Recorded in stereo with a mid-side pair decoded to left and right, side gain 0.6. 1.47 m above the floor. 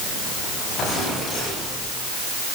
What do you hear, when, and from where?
Only background noise.